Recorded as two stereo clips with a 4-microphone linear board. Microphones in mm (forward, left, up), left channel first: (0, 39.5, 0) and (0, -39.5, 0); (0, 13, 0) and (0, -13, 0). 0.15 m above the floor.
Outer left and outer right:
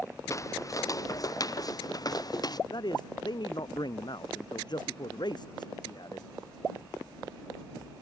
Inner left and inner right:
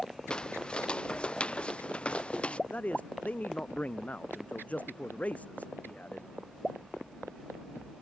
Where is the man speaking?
65° left (ahead or behind).